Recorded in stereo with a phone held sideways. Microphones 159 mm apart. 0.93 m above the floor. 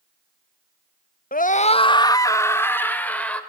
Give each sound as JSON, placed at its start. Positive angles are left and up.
{"t": 1.3, "sound": "a scream", "side_deg": 65, "distance_m": 0.8}